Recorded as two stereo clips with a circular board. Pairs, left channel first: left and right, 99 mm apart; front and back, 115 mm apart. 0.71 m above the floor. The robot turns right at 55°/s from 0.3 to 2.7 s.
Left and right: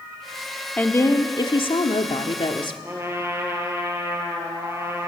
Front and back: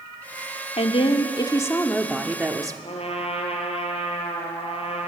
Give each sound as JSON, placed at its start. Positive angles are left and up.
{"t": 0.8, "sound": "a woman speaking", "azimuth_deg": 15, "distance_m": 1.3}
{"t": 2.8, "sound": "a trumpet", "azimuth_deg": -25, "distance_m": 2.5}